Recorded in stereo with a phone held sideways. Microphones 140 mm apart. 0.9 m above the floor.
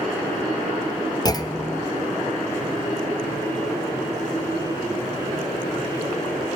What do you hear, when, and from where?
1.2 s a clunk: 25° left (ahead or behind), 0.6 m